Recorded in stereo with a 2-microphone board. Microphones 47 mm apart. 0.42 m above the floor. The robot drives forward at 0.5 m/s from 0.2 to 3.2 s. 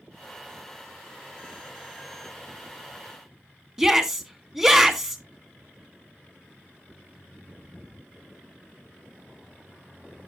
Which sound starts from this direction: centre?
A shout, at 3.8 s.